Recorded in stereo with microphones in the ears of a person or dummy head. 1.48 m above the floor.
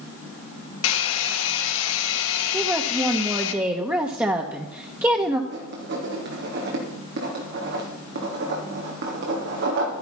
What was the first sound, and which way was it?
A hair dryer, 80° left.